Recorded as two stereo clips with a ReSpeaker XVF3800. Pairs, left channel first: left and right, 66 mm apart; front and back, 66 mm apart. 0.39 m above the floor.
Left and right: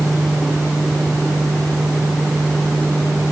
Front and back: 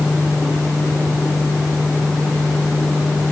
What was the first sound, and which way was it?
Only background noise.